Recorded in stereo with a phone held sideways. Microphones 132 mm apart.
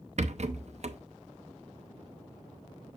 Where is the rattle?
55° right (ahead or behind), 0.6 m.